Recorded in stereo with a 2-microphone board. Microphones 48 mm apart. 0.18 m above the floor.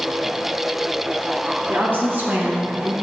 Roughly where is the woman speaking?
Right.